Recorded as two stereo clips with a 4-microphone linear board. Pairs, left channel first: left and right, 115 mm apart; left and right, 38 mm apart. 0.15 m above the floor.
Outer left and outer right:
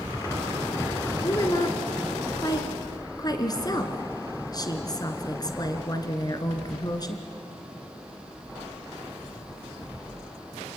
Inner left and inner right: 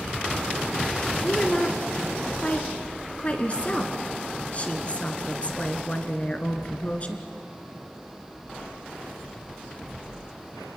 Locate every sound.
1.2 s a woman speaking: 35° left (ahead or behind), 2 m